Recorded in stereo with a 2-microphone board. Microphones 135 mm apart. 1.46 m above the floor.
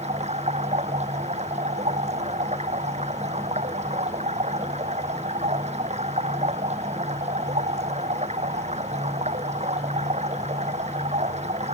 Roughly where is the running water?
Right.